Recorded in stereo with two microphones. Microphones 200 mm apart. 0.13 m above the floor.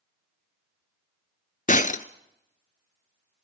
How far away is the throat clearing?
No throat clearing in this recording.